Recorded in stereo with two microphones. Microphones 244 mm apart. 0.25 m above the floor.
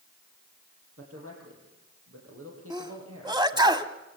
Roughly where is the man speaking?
Right.